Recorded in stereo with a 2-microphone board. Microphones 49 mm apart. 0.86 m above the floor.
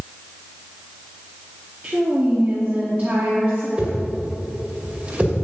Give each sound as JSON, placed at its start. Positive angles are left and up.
{"t": 1.8, "sound": "a woman speaking", "side_deg": -35, "distance_m": 1.7}
{"t": 3.8, "sound": "a whoosh", "side_deg": -30, "distance_m": 2.0}